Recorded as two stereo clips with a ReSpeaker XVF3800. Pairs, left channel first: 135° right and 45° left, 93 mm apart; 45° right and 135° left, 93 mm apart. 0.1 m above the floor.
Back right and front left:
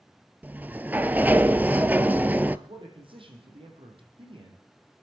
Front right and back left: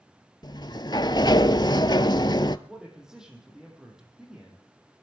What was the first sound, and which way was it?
A sliding door, 20° right.